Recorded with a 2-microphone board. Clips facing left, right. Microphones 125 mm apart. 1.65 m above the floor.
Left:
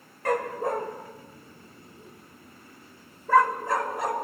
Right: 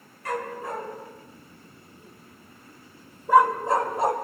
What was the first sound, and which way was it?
A dog barking, 60° left (ahead or behind).